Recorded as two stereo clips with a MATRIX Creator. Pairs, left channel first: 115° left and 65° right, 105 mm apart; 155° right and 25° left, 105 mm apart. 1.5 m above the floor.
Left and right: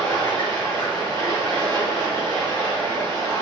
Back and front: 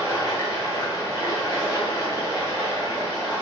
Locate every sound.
0.0 s running water: 105° right, 1.1 m